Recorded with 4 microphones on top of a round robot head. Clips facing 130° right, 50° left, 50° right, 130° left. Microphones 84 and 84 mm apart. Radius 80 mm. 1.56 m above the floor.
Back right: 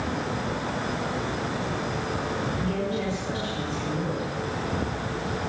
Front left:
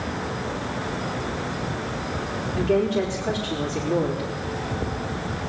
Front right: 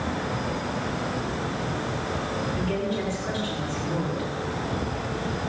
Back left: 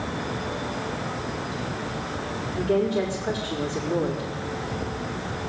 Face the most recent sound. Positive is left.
turn(degrees=55)